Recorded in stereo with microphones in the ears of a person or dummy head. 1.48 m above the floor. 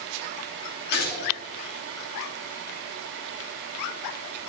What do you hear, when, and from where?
0.9 s a gunshot: 55° left (ahead or behind), 3 m